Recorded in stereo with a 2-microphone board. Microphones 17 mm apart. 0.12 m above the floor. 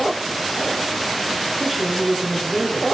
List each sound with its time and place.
1.6 s a woman speaking: 5° left (ahead or behind), 1.4 m